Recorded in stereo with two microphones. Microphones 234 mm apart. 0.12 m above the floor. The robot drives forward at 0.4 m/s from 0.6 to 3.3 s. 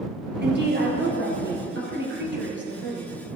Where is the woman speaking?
45° right (ahead or behind), 2.5 m; by 3.1 s 50° right (ahead or behind), 2.5 m.